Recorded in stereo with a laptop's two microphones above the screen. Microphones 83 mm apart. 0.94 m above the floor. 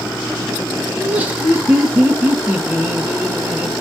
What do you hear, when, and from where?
1.0 s laughter: 15° right (ahead or behind), 0.9 m